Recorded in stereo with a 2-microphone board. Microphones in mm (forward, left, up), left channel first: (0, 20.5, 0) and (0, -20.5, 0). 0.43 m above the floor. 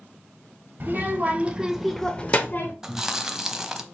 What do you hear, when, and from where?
0.8 s a child speaking: 45° right (ahead or behind), 1.2 m; by 2.7 s 55° left (ahead or behind), 0.8 m
2.8 s chewing: 10° right (ahead or behind), 0.5 m